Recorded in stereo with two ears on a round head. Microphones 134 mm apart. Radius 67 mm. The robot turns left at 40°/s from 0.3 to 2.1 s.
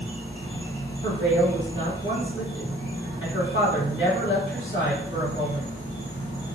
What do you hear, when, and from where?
0.0 s an insect: straight behind, 1.1 m; by 6.5 s 110° left, 1.1 m
1.0 s a woman speaking: 150° left, 1.5 m; by 5.7 s 105° left, 1.5 m